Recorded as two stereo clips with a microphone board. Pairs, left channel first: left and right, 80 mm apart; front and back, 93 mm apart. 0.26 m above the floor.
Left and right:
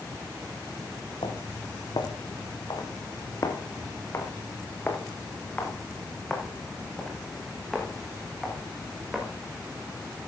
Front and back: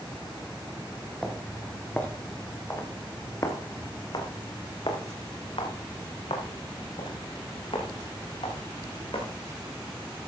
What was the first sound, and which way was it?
Footsteps, 80° left.